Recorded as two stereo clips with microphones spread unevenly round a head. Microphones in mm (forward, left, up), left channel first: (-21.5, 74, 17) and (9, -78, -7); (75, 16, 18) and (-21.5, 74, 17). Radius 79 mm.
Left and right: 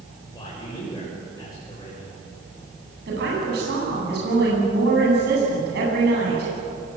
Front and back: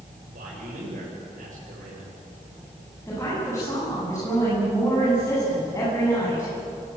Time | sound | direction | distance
0.3 | a man speaking | 170° left | 8 m
3.1 | a woman speaking | 105° right | 9.5 m